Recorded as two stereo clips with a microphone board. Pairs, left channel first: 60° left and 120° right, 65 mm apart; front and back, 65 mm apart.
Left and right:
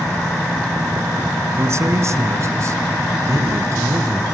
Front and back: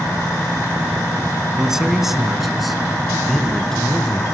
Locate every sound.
1.6 s a man speaking: 100° right, 2 m; by 4.2 s 80° right, 3.5 m